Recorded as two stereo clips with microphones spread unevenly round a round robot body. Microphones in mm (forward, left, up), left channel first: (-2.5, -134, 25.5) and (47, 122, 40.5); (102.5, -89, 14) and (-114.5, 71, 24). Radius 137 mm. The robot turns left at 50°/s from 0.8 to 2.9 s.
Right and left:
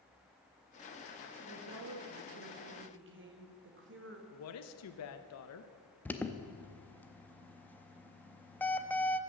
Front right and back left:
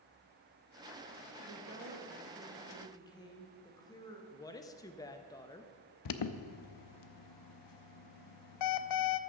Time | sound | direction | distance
1.4 | a woman speaking | 110° left | 1.8 m
4.3 | a woman speaking | 110° right | 0.7 m
6.0 | an alarm | 15° right | 0.6 m